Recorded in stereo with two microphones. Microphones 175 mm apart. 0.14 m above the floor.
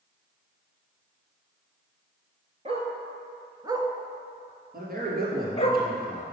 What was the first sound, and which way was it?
A dog barking, 35° right (ahead or behind).